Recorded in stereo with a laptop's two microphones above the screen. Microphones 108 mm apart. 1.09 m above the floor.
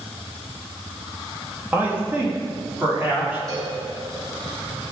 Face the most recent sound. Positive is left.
turn(degrees=-35)  # may be behind; listen again after turning